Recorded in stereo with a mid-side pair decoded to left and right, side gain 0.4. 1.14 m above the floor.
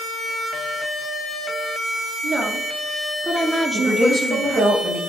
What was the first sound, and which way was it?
A woman speaking, 65° right.